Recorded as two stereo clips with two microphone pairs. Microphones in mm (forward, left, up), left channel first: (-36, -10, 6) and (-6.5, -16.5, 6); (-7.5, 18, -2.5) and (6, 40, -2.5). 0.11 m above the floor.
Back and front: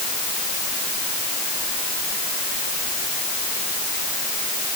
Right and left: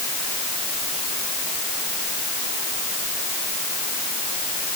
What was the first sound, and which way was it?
Only background noise.